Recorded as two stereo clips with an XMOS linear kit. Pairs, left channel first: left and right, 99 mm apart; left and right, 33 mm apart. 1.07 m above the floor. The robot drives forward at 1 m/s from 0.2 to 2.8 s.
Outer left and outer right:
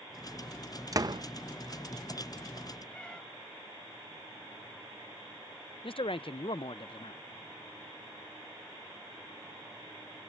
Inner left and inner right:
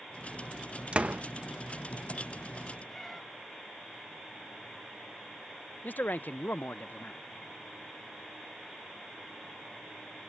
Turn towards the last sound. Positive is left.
turn(degrees=65)  # may be behind; listen again after turning